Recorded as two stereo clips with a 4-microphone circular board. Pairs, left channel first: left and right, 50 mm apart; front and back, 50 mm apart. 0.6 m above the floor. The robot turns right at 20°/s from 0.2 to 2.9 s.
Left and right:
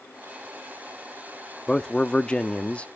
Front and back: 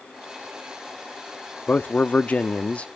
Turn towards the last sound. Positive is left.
turn(degrees=50)